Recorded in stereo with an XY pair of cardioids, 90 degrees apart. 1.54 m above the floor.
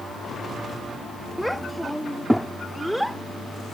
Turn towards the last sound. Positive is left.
turn(degrees=-5)